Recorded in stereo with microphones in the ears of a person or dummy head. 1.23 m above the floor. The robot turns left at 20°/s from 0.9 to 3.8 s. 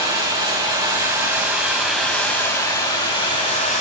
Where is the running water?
160° right, 2 m; by 3.8 s 145° left, 2 m.